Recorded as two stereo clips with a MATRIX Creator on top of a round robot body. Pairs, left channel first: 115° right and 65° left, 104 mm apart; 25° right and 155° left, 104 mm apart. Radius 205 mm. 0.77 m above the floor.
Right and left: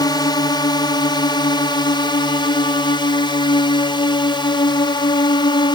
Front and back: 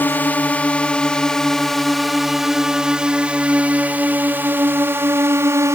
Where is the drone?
90° right; by 5.8 s 145° right.